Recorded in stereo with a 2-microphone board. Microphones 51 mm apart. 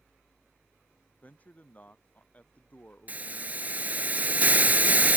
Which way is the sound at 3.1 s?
35° right (ahead or behind).